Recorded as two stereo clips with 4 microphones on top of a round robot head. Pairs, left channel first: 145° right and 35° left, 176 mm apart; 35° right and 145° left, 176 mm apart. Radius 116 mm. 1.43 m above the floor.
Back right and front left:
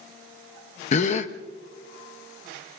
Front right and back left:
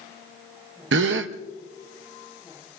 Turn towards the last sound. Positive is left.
turn(degrees=165)